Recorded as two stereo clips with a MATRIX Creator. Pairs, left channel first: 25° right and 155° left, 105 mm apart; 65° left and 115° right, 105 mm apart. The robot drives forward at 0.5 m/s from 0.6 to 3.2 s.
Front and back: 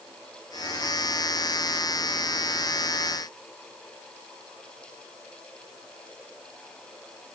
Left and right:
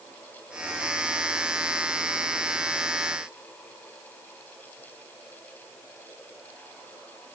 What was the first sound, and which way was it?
Only background noise.